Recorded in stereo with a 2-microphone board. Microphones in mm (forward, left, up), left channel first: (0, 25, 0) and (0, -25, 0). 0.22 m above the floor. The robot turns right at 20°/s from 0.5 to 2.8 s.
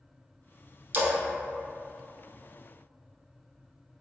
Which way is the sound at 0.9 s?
45° right (ahead or behind).